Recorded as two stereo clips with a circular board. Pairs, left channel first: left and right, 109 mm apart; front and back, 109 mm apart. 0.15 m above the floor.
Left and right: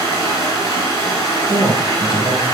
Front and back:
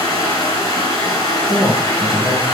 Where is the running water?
50° left, 1.3 m.